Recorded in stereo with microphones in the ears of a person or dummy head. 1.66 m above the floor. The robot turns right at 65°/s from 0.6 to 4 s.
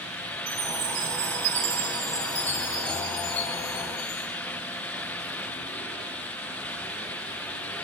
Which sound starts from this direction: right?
A chime, at 0.5 s.